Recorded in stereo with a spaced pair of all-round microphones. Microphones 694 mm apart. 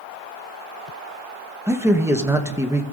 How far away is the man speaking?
About 1.0 m.